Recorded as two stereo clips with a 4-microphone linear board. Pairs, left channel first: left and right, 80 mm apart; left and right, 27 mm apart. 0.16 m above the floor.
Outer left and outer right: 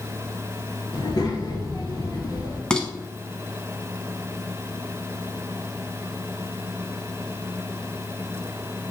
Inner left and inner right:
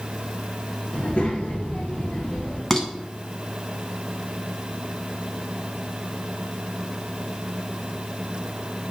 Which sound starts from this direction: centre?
Dishes clattering, at 2.7 s.